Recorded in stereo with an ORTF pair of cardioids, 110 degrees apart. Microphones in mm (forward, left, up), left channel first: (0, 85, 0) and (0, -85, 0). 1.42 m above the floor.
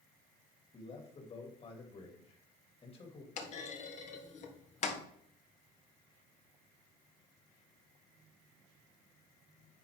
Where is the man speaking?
35° left, 2.5 m.